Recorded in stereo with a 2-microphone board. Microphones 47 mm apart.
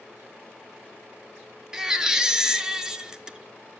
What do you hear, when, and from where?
1.7 s a baby crying: 15° right (ahead or behind), 0.9 m